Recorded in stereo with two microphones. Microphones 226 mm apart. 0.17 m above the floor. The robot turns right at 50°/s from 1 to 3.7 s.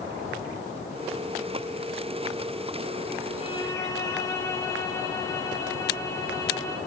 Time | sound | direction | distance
3.4 | a violin | 30° left (ahead or behind) | 5.5 m